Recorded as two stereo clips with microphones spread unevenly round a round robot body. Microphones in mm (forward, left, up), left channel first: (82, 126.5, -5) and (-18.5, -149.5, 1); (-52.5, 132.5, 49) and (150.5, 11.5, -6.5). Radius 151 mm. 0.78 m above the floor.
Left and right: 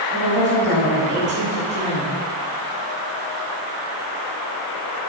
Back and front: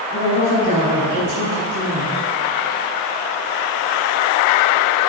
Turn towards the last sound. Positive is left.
turn(degrees=180)